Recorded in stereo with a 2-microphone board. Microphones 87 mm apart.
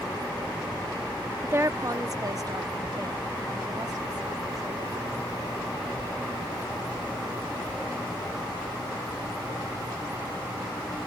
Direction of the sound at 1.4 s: 25° right (ahead or behind).